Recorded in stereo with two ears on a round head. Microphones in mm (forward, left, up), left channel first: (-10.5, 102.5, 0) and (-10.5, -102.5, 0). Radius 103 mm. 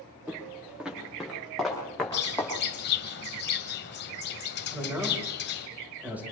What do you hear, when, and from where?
0.3 s footsteps: 5° right (ahead or behind), 7 m; by 2.5 s 5° left (ahead or behind), 6.5 m
2.1 s a bird: 45° left (ahead or behind), 2.0 m
4.7 s a man speaking: 10° right (ahead or behind), 7 m